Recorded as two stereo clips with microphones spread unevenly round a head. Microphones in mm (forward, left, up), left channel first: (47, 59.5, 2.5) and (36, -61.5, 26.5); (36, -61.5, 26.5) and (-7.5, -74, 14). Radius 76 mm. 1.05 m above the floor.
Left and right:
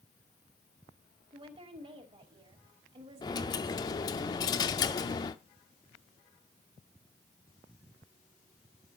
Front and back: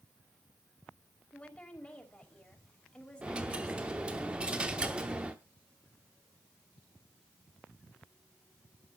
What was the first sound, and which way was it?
A woman speaking, 50° right.